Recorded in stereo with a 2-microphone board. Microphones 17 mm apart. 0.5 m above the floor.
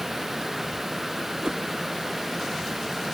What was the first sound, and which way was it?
A whoosh, 65° right (ahead or behind).